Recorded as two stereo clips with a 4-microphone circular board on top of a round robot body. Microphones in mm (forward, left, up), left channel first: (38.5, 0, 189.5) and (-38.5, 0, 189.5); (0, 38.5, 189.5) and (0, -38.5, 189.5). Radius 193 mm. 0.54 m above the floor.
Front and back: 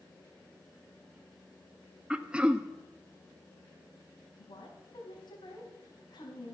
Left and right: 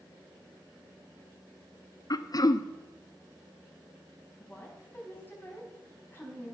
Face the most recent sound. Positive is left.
turn(degrees=25)